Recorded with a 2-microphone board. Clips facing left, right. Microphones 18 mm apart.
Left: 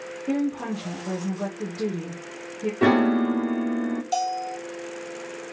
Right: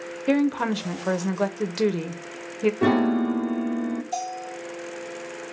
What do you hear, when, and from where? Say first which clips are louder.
0.3 s a woman speaking: right 4 dB; 65° right (ahead or behind), 0.5 m
2.8 s a piano: left 3 dB; 20° left (ahead or behind), 0.6 m
4.1 s a bell: left 5 dB; 50° left (ahead or behind), 0.8 m